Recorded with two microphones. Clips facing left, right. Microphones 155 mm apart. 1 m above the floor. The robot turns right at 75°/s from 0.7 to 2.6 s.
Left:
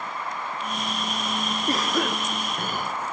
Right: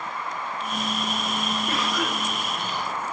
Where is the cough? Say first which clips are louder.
Left 2 dB; 45° left, 0.8 m; by 2.9 s 115° left, 0.8 m.